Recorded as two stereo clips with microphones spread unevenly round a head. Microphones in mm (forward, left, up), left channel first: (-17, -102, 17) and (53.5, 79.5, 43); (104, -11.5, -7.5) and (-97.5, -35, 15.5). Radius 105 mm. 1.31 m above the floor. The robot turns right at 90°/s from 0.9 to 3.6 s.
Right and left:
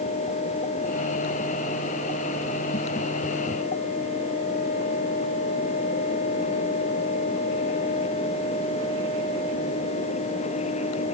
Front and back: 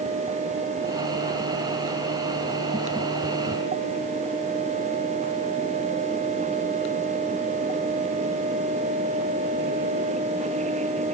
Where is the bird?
I don't hear a bird.